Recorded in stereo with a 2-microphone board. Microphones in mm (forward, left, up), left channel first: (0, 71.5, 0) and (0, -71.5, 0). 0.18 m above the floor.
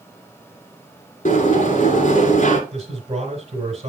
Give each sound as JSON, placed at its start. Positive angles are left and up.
{"t": 1.2, "sound": "a sliding door", "side_deg": 60, "distance_m": 1.8}
{"t": 2.7, "sound": "a man speaking", "side_deg": -40, "distance_m": 1.9}